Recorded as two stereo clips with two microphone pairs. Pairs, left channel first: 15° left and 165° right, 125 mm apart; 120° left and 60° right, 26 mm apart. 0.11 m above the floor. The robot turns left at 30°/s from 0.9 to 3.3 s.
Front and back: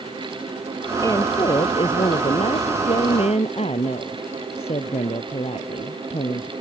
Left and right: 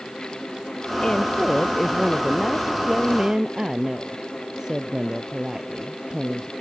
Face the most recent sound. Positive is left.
turn(degrees=5)